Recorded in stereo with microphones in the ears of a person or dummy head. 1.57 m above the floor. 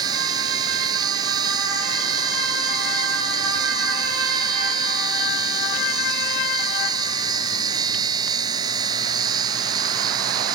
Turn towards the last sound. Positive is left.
turn(degrees=-20)  # may be behind; listen again after turning